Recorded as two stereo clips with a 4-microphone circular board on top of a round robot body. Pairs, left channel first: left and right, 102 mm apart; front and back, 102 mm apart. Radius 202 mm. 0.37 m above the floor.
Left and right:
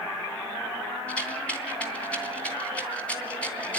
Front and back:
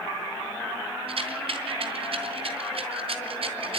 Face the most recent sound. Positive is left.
turn(degrees=170)